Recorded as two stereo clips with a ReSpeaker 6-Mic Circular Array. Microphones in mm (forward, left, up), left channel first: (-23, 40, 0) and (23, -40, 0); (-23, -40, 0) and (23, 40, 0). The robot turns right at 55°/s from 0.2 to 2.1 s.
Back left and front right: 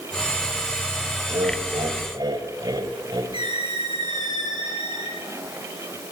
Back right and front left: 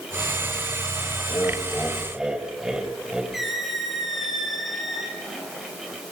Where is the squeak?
30° right, 6 m.